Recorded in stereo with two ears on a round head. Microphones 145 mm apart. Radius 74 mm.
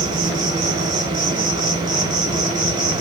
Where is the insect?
25° right (ahead or behind), 0.8 m.